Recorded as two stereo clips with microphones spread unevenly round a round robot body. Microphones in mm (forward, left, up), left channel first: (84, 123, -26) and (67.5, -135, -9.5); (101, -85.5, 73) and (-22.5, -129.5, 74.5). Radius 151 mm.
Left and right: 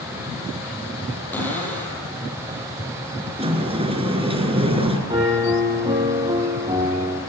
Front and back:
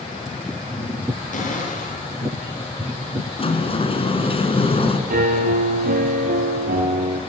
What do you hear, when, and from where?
1.3 s a cupboard door: 5° left, 8 m
3.4 s a sliding door: 25° right, 3.5 m
5.1 s a piano: 170° right, 3.5 m